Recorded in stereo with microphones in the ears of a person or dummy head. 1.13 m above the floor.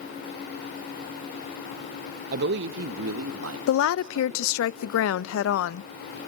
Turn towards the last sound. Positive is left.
turn(degrees=85)